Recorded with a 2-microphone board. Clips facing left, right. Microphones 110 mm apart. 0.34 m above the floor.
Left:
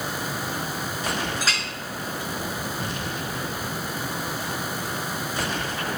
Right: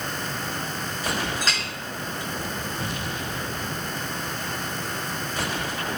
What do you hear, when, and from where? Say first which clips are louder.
1.4 s a clink: even; 5° left (ahead or behind), 3.5 m